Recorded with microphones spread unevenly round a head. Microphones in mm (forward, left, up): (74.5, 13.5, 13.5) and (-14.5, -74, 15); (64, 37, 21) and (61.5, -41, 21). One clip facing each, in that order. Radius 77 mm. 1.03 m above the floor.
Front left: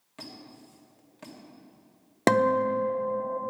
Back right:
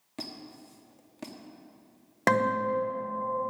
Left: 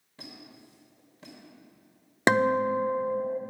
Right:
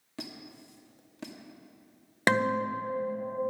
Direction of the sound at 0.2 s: 85° right.